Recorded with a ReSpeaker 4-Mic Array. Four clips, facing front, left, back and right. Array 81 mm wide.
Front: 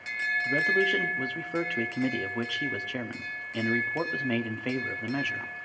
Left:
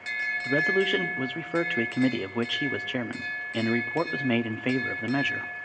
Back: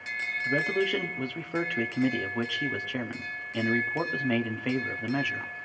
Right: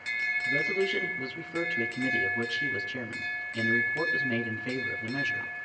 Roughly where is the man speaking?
Left.